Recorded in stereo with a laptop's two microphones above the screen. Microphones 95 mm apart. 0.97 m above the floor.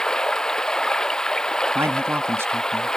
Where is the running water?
10° left (ahead or behind).